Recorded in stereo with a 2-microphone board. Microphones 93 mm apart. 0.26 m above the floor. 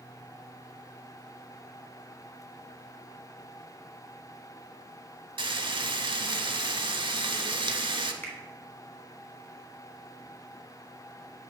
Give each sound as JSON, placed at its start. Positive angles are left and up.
{"t": 5.4, "sound": "frying", "side_deg": -60, "distance_m": 0.8}
{"t": 8.2, "sound": "a finger snap", "side_deg": 20, "distance_m": 2.0}